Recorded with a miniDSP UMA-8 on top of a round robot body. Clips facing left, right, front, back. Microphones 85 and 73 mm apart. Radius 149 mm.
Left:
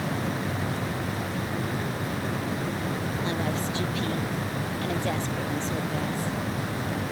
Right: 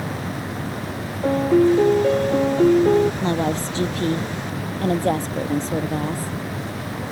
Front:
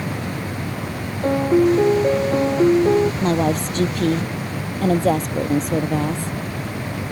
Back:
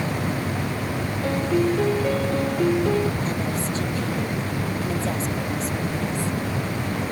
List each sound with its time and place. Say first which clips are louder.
1.2 s a piano: right 15 dB, front 7 dB; 65° right
3.2 s a woman speaking: right 6 dB, front 7 dB; 35° right